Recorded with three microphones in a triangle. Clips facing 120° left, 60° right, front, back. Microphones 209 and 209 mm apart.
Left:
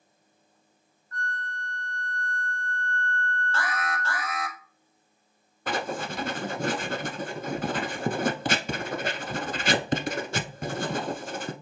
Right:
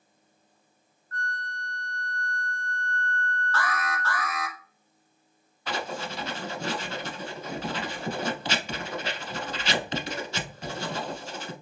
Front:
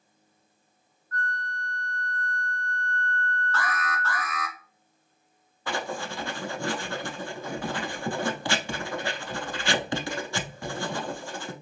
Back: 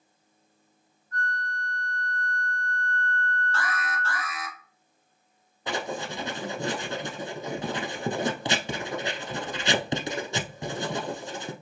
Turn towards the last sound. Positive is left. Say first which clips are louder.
# left 3 dB, back 1 dB
turn(degrees=120)